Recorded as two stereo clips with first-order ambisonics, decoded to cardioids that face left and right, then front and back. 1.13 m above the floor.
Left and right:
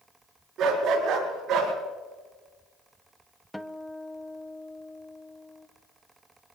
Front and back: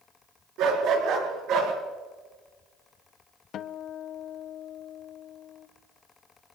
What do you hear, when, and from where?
0.6 s a dog barking: 145° right, 6.5 m
3.5 s a guitar: 5° left, 0.6 m